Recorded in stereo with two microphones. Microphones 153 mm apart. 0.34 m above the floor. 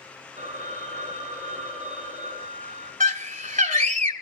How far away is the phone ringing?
About 7 m.